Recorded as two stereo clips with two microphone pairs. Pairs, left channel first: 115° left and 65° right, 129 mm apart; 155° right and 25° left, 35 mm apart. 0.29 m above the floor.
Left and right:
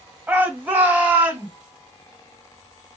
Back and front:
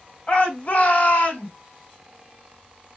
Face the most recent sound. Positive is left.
turn(degrees=-140)